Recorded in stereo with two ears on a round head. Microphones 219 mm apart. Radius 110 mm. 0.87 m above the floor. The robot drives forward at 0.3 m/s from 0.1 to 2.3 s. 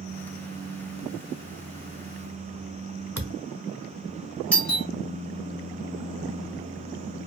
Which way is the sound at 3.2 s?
60° right (ahead or behind).